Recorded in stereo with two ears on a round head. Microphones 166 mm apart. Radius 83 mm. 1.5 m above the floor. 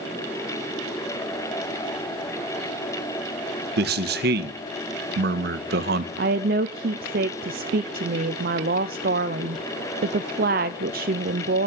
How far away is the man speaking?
About 1.1 m.